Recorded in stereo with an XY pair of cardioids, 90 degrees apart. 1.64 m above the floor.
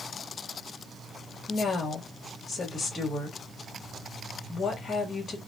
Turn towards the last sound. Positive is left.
turn(degrees=45)